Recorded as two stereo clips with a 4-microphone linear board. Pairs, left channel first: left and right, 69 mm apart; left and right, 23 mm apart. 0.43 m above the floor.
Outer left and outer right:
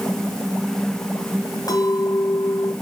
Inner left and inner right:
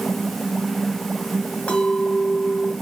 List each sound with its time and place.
1.7 s a clink: 65° left (ahead or behind), 2 m